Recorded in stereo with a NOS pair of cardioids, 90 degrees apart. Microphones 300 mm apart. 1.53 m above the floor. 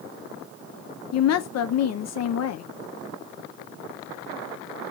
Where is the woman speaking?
60° left, 0.7 m.